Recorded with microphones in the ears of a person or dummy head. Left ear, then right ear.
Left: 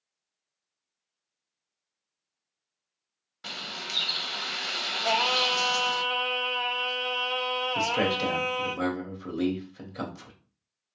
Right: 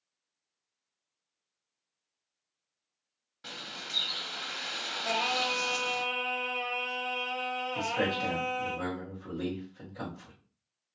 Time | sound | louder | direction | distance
3.4 | a bird | left 5 dB | 20° left (ahead or behind) | 0.5 m
5.0 | singing | left 5 dB | 55° left (ahead or behind) | 0.9 m
7.8 | a man speaking | left 3 dB | 75° left (ahead or behind) | 1.1 m